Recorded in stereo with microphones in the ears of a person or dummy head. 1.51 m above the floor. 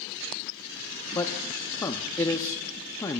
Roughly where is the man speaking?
Centre.